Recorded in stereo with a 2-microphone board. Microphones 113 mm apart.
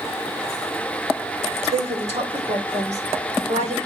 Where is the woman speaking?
70° right (ahead or behind), 1.9 m; by 3.8 s 80° right, 3 m.